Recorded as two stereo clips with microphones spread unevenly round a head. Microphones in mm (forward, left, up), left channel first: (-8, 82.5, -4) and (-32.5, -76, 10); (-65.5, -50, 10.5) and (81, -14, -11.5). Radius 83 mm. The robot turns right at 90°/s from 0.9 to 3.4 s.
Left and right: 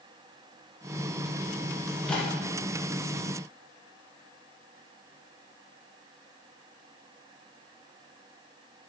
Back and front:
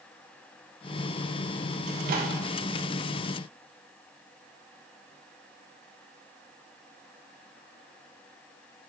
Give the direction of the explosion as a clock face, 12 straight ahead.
I don't hear an explosion.